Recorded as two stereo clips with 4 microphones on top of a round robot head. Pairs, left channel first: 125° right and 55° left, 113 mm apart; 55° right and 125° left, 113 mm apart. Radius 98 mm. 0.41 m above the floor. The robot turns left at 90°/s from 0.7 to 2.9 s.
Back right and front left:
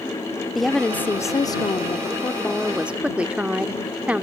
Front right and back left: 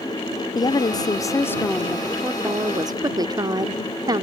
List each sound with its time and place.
0.6 s a woman speaking: 35° right; by 4.2 s 125° left